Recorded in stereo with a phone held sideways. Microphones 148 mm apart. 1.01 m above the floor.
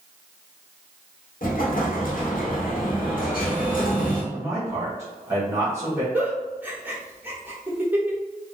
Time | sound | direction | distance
1.4 | an explosion | 65° left (ahead or behind) | 0.8 m
4.3 | a man speaking | 20° right (ahead or behind) | 1.2 m
6.1 | a giggle | 10° right (ahead or behind) | 0.9 m